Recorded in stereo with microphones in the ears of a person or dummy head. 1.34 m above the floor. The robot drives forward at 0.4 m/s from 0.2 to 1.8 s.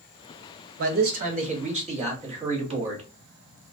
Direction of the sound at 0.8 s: 45° right (ahead or behind).